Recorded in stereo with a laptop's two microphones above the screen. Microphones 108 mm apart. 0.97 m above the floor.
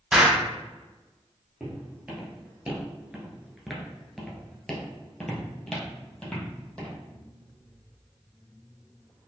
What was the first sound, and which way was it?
An explosion, 10° right (ahead or behind).